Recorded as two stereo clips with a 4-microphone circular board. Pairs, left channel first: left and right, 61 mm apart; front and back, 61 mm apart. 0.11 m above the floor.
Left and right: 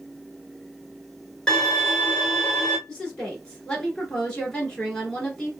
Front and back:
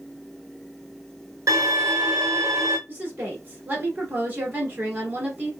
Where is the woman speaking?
150° left, 1.8 m.